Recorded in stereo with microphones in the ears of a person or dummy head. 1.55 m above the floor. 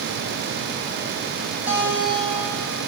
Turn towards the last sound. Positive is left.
turn(degrees=-20)  # may be behind; listen again after turning